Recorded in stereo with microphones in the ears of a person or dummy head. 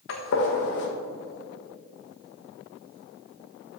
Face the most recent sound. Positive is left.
turn(degrees=60)  # may be behind; listen again after turning